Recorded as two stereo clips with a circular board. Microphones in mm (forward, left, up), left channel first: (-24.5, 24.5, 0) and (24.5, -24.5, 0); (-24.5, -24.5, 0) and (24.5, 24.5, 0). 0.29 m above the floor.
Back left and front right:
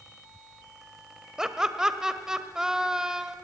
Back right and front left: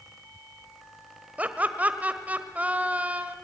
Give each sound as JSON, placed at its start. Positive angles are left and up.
{"t": 1.4, "sound": "laughter", "azimuth_deg": 25, "distance_m": 1.2}